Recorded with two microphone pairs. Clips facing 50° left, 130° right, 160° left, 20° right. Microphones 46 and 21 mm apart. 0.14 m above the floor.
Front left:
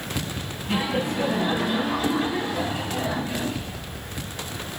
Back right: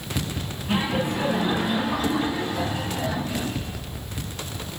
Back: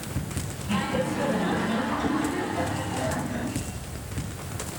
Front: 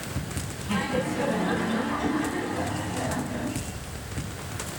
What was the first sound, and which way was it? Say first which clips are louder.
Laughter: back right 1 dB, even; 115° right.